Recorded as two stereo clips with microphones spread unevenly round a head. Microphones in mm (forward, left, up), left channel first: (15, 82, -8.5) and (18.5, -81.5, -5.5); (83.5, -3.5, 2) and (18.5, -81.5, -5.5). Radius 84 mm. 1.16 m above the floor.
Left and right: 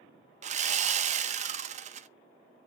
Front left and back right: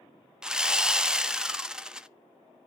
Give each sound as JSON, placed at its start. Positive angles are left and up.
{"t": 0.4, "sound": "sawing", "azimuth_deg": -45, "distance_m": 0.6}